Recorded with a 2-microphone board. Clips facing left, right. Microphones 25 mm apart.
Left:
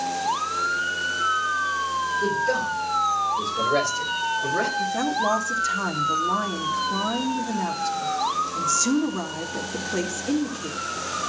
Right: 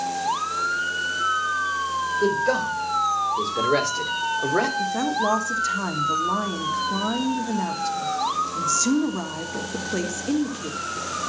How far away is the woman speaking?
About 1.6 m.